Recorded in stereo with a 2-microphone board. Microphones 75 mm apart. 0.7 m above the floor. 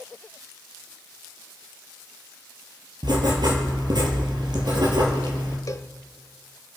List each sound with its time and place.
3.0 s writing: 65° right (ahead or behind), 4 m
5.7 s a cowbell: 45° left (ahead or behind), 0.7 m